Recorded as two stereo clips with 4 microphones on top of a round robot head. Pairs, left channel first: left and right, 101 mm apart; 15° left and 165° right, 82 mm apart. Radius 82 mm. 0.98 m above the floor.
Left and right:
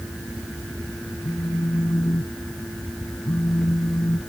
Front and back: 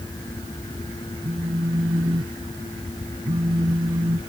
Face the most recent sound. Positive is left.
turn(degrees=160)